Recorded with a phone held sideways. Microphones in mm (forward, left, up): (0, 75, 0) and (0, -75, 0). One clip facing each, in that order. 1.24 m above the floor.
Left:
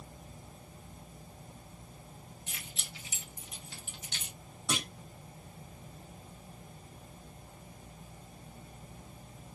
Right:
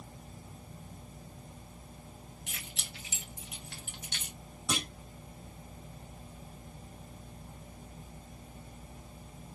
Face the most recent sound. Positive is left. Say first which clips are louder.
# even
turn(degrees=0)  # may be behind; listen again after turning